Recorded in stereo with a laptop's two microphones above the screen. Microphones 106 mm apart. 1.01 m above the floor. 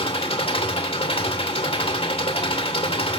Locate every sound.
0.0 s an engine running: 65° left (ahead or behind), 2.5 m